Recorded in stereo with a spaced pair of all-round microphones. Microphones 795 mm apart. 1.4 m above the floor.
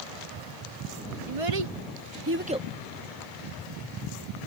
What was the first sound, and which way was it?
A child speaking, 45° right (ahead or behind).